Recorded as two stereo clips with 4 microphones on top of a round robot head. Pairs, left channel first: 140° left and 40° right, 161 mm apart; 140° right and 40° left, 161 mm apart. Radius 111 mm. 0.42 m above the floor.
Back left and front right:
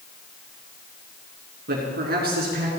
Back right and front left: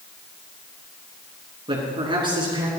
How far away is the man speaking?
About 6 m.